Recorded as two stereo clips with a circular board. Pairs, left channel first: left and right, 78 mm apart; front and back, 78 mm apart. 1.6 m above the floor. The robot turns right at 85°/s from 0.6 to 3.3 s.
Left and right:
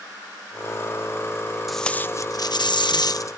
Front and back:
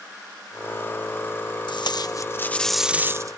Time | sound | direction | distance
1.7 | tape being pulled | straight ahead | ?